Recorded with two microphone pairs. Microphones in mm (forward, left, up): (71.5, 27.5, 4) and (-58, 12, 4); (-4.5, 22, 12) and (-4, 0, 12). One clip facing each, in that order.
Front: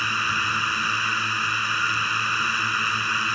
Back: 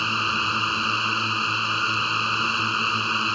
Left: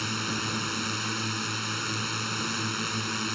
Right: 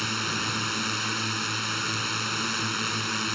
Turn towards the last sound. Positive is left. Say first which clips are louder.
# back 1 dB, right 2 dB
turn(degrees=-145)